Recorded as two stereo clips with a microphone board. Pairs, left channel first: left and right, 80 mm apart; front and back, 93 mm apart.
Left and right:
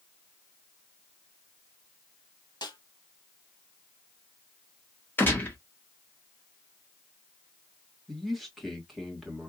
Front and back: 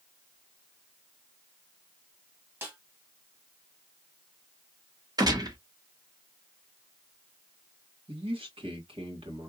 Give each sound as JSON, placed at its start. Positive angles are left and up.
{"t": 2.6, "sound": "a snare drum", "azimuth_deg": 115, "distance_m": 1.7}
{"t": 5.2, "sound": "a gunshot", "azimuth_deg": 150, "distance_m": 1.2}
{"t": 8.1, "sound": "a man speaking", "azimuth_deg": 180, "distance_m": 2.0}